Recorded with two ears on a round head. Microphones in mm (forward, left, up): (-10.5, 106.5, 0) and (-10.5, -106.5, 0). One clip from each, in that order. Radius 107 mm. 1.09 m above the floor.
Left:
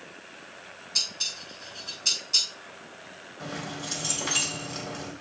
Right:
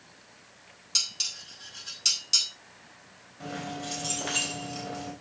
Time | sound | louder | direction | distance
0.9 | dishes clattering | even | 90° right | 5 m
3.4 | keys jangling | even | centre (ahead or behind) | 3.5 m